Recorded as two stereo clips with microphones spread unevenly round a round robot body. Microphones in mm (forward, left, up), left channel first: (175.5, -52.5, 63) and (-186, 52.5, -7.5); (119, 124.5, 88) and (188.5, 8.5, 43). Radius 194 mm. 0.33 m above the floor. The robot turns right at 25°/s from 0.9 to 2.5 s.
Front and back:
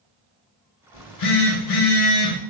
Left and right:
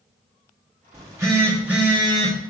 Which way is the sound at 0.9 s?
30° right.